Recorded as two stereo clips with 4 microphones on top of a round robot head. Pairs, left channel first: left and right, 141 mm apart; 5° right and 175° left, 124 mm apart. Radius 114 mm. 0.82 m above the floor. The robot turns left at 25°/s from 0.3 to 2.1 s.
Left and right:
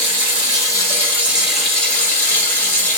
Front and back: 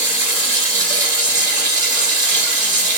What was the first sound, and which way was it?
Running water, 150° right.